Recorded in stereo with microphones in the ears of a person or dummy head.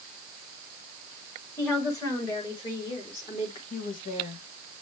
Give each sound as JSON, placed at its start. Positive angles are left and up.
{"t": 1.6, "sound": "a woman speaking", "side_deg": 15, "distance_m": 4.0}
{"t": 3.7, "sound": "a woman speaking", "side_deg": 40, "distance_m": 2.5}